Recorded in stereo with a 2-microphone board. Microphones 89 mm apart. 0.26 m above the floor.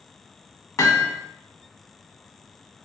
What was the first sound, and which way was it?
Hammering, 45° left (ahead or behind).